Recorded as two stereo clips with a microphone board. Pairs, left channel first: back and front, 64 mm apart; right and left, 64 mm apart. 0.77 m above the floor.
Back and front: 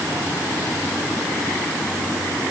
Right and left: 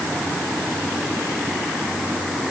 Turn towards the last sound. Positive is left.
No sound to turn to.